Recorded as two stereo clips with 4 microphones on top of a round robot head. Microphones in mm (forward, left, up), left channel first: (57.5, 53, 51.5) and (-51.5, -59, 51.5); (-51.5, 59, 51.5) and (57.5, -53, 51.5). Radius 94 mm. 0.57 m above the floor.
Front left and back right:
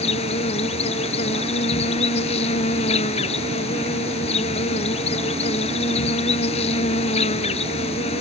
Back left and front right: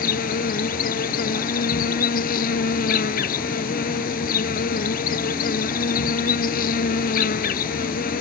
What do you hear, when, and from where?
0.0 s an insect: 100° left